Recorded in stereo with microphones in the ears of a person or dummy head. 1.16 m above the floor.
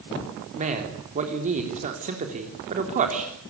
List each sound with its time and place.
0.6 s a man speaking: 30° right (ahead or behind), 3.5 m